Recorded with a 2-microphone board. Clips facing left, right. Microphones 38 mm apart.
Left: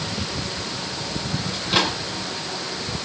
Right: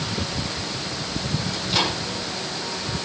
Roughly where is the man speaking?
I don't hear a man speaking.